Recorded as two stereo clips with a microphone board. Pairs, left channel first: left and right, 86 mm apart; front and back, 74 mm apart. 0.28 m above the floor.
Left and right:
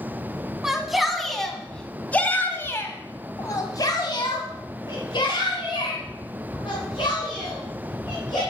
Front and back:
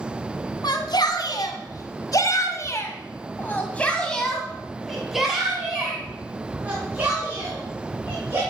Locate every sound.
0.6 s a shout: 5° right, 2 m; by 8.4 s 115° left, 3.5 m